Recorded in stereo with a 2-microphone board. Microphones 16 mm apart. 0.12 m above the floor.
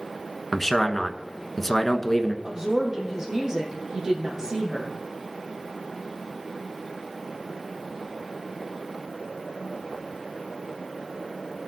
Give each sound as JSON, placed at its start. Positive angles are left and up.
{"t": 0.5, "sound": "a man speaking", "side_deg": 20, "distance_m": 1.2}
{"t": 2.4, "sound": "a woman speaking", "side_deg": -35, "distance_m": 4.5}